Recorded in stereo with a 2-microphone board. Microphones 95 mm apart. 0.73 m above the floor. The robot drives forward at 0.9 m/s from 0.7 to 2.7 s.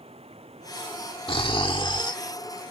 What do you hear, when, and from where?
0.0 s running water: 85° right; by 2.7 s 80° right
1.3 s snoring: 65° left (ahead or behind); by 2.2 s 50° left (ahead or behind)